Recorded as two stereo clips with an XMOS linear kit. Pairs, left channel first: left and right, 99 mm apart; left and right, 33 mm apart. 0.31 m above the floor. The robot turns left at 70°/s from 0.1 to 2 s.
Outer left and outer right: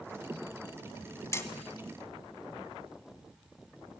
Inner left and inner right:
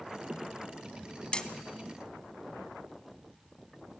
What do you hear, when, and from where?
1.3 s hammering: 30° left (ahead or behind), 1.0 m; by 1.5 s 20° left (ahead or behind), 1.0 m